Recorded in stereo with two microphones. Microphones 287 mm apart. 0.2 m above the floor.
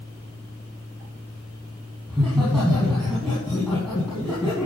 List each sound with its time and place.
2.1 s laughter: centre (ahead or behind), 6.5 m